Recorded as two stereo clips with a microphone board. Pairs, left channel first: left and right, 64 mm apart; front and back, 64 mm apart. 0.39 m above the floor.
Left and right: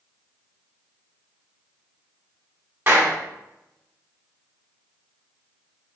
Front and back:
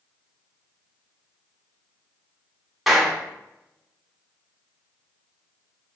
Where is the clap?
95° right, 1.0 m.